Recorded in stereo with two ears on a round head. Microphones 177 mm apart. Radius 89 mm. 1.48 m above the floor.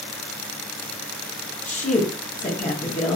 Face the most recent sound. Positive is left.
turn(degrees=40)  # may be behind; listen again after turning